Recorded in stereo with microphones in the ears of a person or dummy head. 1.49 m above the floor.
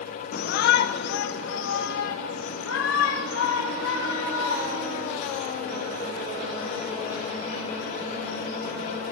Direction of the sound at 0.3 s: 55° left (ahead or behind).